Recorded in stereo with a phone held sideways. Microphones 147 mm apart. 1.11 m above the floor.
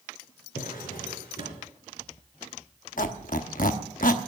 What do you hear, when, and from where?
0.6 s a drawer: 80° left, 4 m
3.0 s a squeak: 70° left (ahead or behind), 1.0 m